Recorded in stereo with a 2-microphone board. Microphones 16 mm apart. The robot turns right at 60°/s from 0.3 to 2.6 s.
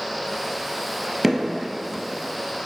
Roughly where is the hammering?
Centre.